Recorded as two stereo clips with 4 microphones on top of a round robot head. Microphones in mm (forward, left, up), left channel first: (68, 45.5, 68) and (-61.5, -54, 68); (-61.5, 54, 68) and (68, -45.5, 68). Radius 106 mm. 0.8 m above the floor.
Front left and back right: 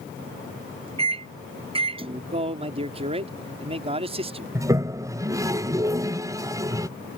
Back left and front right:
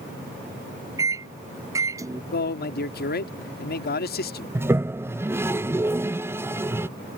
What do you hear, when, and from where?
1.0 s a microwave: 100° right
2.3 s a man speaking: 165° left
4.5 s a toilet flushing: 95° right